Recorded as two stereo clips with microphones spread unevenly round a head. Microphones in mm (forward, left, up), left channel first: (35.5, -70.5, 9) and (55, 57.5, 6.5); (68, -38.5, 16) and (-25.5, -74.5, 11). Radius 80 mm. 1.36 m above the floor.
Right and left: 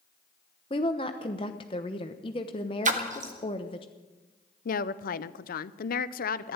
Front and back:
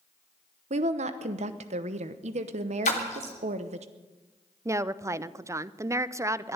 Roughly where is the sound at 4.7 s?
Right.